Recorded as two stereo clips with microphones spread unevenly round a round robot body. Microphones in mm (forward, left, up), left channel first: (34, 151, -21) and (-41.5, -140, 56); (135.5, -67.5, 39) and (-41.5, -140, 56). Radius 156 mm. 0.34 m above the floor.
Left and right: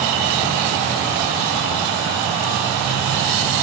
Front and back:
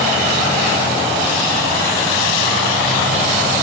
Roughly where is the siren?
No siren in this recording.